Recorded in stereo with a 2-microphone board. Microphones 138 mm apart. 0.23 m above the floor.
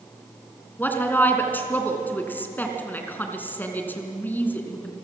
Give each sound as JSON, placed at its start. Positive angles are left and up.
{"t": 0.8, "sound": "a woman speaking", "side_deg": 10, "distance_m": 2.5}